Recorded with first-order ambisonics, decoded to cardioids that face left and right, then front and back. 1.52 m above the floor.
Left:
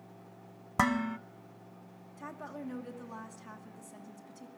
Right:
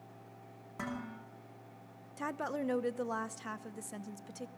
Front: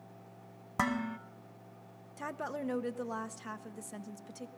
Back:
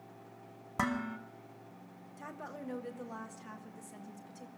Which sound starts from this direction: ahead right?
A woman speaking, at 2.2 s.